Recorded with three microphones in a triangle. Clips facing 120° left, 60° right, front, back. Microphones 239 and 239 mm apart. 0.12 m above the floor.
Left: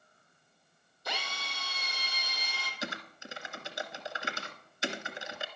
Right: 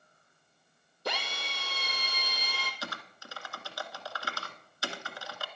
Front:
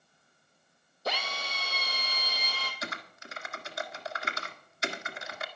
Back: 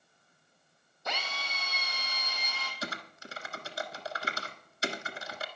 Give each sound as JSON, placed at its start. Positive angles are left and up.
{"t": 1.1, "sound": "a drill", "azimuth_deg": -50, "distance_m": 2.5}
{"t": 2.8, "sound": "typing on a keyboard", "azimuth_deg": 170, "distance_m": 1.4}